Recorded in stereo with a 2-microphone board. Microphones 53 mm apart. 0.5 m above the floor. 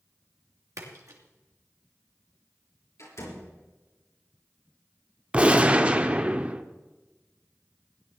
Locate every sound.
0.8 s a splash: 75° right (ahead or behind), 2.5 m
3.0 s a door slam: 60° left (ahead or behind), 6 m
5.3 s a gunshot: 20° right (ahead or behind), 0.8 m